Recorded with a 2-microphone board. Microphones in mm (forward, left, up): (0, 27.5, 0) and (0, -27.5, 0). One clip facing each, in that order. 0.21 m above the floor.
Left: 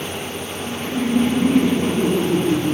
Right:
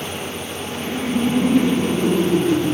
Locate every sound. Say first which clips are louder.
0.6 s laughter: left 2 dB; 35° left (ahead or behind), 2.5 m